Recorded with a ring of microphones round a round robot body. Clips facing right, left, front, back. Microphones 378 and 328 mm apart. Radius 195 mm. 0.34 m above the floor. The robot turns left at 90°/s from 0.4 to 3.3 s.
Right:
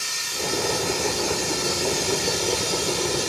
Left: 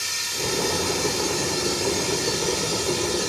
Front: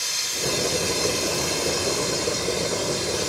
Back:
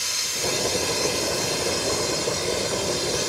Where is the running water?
105° left, 2.5 m; by 3.3 s 160° right, 2.5 m.